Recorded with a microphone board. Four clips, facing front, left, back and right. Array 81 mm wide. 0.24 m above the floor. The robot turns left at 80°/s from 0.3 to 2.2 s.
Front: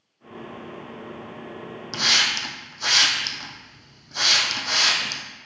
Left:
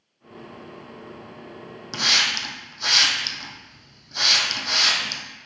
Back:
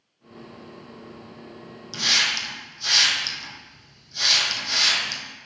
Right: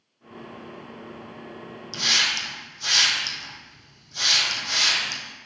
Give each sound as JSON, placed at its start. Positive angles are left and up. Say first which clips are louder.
{"t": 1.9, "sound": "a hiss", "louder": "left 2 dB, front 1 dB", "azimuth_deg": 55, "distance_m": 2.0}